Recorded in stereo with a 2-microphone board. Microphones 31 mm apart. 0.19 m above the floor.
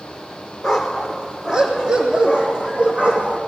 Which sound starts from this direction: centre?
A dog barking, at 0.6 s.